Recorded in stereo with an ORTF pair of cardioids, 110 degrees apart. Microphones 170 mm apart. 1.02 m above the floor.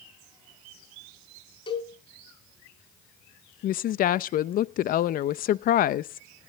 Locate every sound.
1.7 s a cowbell: 30° left, 5 m
3.6 s a woman speaking: 60° left, 0.6 m